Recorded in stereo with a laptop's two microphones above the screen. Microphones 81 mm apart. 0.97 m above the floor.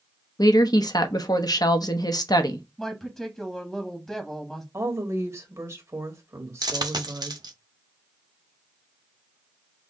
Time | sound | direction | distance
0.4 | a woman speaking | 55° left (ahead or behind) | 0.9 m
2.8 | a woman speaking | 5° left (ahead or behind) | 1.5 m
4.7 | a woman speaking | 35° right (ahead or behind) | 1.7 m
6.6 | a dropped coin | 60° right (ahead or behind) | 0.7 m